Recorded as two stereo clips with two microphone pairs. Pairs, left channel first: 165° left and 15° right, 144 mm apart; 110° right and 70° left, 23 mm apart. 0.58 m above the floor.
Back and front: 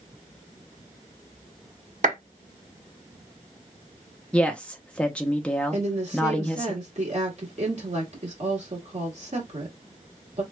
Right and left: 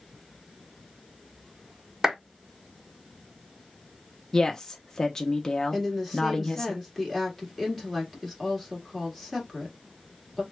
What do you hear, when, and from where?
2.0 s a clap: 10° left, 1.7 m
4.3 s a woman speaking: 130° right, 0.6 m
5.7 s a woman speaking: 20° right, 1.6 m